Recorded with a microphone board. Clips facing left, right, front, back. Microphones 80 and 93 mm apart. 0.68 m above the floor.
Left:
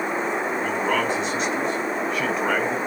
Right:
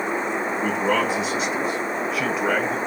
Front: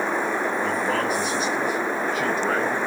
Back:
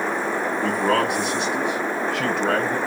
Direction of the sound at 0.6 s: 175° right.